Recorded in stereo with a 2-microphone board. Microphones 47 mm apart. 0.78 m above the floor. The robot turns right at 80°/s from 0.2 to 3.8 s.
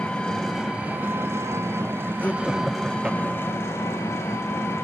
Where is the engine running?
155° left, 3 m; by 4.8 s 80° left, 3 m.